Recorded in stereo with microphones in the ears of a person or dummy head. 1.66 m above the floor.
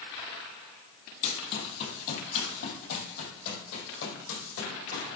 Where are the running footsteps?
45° left (ahead or behind), 2.5 m; by 5.1 s 70° left (ahead or behind), 4.5 m.